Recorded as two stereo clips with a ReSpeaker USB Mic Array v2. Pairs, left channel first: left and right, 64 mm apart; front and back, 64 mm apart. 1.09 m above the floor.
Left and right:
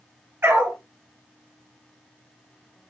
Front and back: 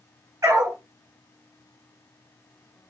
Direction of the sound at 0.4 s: 145° right.